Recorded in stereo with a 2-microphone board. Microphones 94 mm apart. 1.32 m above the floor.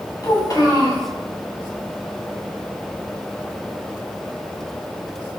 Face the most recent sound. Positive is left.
turn(degrees=35)  # may be behind; listen again after turning